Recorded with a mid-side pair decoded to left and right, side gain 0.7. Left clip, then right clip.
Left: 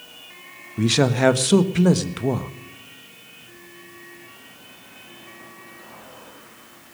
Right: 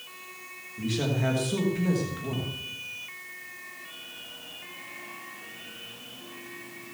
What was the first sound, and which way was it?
A man speaking, 55° left.